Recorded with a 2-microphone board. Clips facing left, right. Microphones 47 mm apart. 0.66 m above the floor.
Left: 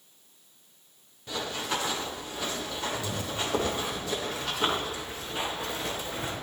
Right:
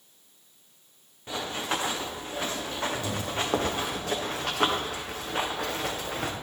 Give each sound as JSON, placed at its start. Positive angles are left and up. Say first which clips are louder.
{"t": 1.3, "sound": "running footsteps", "louder": "right 1 dB", "side_deg": -30, "distance_m": 5.0}